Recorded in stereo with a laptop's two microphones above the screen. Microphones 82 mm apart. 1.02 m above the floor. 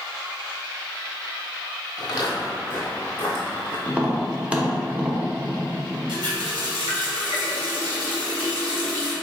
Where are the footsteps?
45° left (ahead or behind), 1.5 m; by 3.8 s 15° left (ahead or behind), 1.5 m.